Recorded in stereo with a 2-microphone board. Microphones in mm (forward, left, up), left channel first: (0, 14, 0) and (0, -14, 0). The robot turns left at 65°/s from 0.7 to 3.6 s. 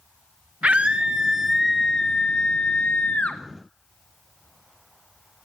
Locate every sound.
0.6 s a scream: 120° right, 0.7 m; by 3.4 s 65° left, 0.7 m